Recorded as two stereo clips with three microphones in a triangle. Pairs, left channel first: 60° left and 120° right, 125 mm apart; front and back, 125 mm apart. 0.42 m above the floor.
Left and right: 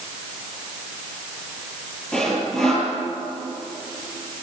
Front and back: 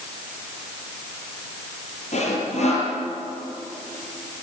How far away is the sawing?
About 7 m.